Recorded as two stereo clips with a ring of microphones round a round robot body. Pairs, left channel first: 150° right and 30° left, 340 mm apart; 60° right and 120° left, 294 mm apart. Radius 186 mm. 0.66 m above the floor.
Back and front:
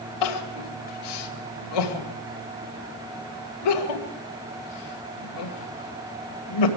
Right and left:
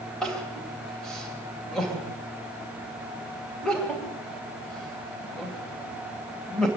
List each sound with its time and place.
0.2 s crying: 150° right, 2 m